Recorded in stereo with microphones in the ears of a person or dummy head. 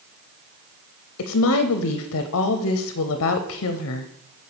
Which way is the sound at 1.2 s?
75° left (ahead or behind).